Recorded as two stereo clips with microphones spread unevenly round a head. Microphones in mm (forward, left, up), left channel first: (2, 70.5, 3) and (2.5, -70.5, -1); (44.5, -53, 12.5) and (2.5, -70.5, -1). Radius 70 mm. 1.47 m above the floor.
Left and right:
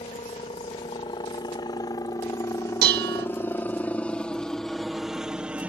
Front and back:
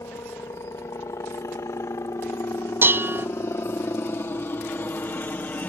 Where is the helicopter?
35° left; by 5.7 s 15° right.